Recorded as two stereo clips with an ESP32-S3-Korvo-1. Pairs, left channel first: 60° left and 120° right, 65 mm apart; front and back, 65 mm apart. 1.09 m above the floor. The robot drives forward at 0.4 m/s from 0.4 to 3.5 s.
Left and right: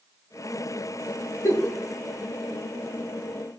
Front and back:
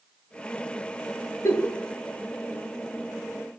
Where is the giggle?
30° left, 1.7 m; by 1.7 s 35° left, 1.6 m.